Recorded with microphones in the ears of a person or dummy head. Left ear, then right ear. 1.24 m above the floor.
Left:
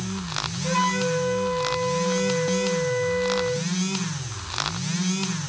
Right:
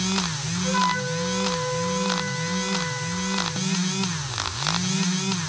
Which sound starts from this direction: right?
A flute, at 0.6 s.